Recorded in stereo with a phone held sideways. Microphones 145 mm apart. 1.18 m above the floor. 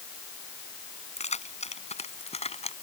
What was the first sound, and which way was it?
Keys jangling, 50° left (ahead or behind).